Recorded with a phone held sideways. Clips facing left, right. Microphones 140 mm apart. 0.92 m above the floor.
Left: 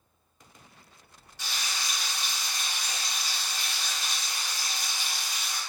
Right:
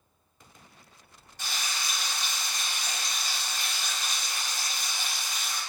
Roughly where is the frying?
Right.